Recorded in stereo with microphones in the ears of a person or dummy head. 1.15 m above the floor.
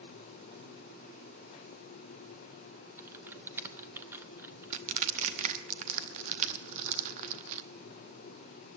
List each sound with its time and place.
3.0 s typing on a keyboard: 10° right (ahead or behind), 0.8 m
4.7 s crushing: 40° right (ahead or behind), 0.8 m